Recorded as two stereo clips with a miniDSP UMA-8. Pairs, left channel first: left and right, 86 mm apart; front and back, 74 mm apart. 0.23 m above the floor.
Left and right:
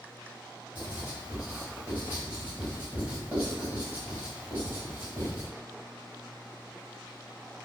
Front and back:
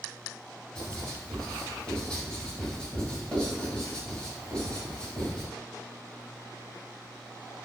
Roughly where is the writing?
Ahead right.